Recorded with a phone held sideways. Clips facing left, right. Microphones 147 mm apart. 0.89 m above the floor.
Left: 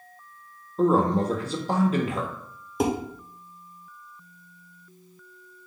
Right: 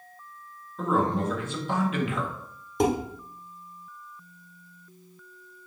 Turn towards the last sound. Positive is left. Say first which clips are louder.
# right 1 dB
turn(degrees=5)  # may be behind; listen again after turning